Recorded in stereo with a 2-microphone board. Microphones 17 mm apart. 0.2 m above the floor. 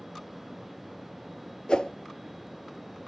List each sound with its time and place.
1.7 s a whoosh: 55° left (ahead or behind), 0.9 m